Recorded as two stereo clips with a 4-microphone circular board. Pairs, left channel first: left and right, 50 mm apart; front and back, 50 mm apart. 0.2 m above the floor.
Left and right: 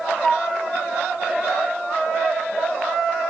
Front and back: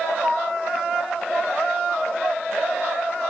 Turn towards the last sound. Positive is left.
turn(degrees=150)